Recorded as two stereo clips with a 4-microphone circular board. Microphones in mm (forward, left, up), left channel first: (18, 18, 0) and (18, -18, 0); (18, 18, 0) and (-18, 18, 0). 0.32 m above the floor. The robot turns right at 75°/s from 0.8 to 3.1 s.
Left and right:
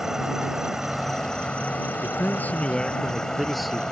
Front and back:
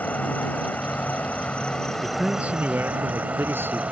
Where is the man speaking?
100° left; by 3.8 s straight behind.